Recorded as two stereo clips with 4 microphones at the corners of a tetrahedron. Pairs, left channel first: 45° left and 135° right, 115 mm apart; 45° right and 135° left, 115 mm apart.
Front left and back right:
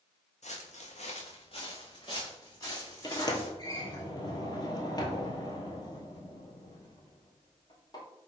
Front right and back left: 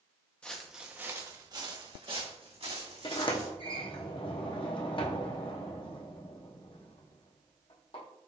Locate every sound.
0.4 s footsteps: 35° left, 0.8 m; by 3.5 s 110° left, 2.5 m
3.0 s a sliding door: 10° right, 0.9 m